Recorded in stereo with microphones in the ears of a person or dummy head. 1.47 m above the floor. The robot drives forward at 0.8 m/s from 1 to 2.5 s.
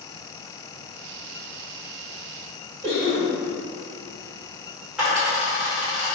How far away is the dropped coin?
About 1.9 m.